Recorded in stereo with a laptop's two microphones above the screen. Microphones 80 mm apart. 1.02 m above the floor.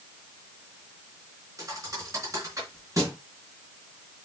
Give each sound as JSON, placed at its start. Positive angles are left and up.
{"t": 1.6, "sound": "a thud", "side_deg": -45, "distance_m": 3.5}